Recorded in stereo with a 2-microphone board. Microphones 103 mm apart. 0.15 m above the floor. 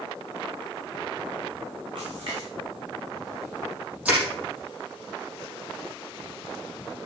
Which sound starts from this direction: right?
A splash, at 1.9 s.